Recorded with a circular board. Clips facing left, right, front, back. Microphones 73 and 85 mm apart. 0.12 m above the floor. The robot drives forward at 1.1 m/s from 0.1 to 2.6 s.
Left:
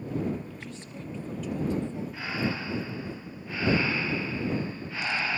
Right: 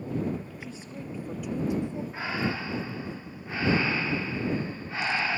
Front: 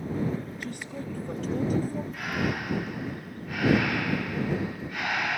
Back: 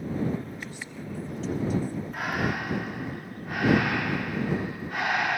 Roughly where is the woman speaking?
Ahead.